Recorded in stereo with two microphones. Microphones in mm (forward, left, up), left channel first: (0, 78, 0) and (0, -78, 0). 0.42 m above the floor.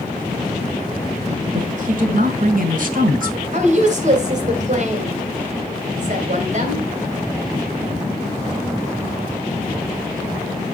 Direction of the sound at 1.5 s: 55° right (ahead or behind).